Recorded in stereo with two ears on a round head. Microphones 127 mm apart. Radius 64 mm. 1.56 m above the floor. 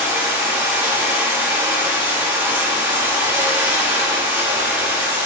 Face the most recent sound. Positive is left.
turn(degrees=-15)  # may be behind; listen again after turning